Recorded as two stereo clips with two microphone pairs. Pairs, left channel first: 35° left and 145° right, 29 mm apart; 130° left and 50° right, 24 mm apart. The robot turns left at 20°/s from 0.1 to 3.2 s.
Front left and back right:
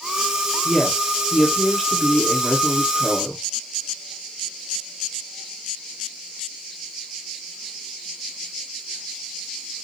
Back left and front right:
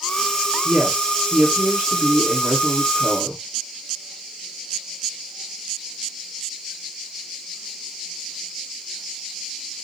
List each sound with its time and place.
0.7 s a woman speaking: 10° left, 2.5 m; by 3.4 s 40° right, 2.5 m